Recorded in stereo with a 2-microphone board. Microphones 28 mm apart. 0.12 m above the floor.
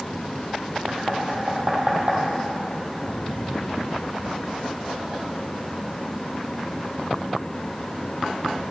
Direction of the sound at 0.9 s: 60° right (ahead or behind).